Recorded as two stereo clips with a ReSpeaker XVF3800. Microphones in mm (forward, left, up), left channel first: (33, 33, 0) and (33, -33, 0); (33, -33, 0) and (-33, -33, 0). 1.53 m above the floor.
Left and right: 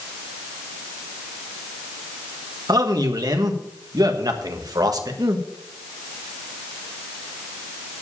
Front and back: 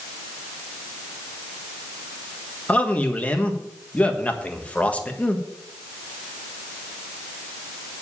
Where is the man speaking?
70° right, 1.5 m.